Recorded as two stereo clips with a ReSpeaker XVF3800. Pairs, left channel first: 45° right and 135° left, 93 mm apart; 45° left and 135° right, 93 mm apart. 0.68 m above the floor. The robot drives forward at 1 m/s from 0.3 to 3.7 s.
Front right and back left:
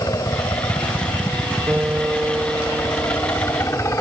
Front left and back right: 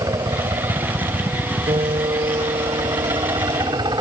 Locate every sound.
0.0 s a helicopter: 90° right; by 4.0 s 100° right
1.7 s a piano: 150° right